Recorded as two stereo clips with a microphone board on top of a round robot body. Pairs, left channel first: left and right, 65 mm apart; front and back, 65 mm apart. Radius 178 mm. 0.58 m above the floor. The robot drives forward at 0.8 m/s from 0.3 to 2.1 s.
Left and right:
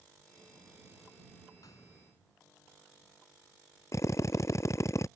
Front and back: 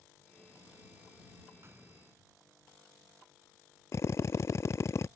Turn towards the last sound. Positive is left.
turn(degrees=45)